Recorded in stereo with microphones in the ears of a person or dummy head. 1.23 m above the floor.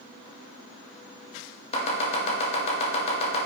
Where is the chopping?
30° left (ahead or behind), 2 m.